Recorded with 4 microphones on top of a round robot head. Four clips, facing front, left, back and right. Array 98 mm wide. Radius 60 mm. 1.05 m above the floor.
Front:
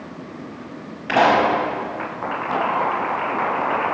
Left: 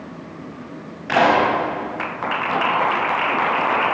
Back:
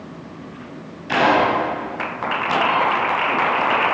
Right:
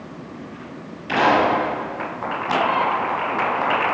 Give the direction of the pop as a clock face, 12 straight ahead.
11 o'clock.